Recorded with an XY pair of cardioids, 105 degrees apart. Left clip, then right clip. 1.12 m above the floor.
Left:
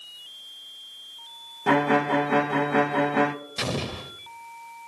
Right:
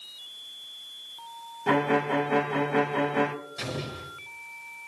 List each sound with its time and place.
1.7 s a violin: 35° left, 0.6 m
3.6 s an explosion: 70° left, 0.8 m